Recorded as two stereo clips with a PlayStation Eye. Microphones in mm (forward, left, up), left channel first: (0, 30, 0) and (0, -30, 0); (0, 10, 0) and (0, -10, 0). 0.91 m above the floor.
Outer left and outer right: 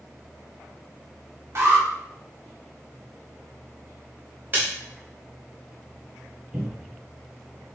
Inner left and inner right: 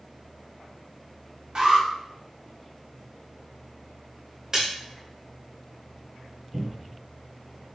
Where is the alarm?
50° right (ahead or behind), 1.3 m.